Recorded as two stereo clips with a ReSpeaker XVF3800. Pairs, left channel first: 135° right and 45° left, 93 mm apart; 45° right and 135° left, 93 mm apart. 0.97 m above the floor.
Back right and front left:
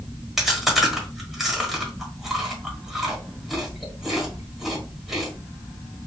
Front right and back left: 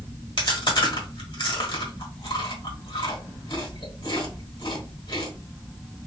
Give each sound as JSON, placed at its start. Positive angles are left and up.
{"t": 0.4, "sound": "chewing", "azimuth_deg": -40, "distance_m": 1.3}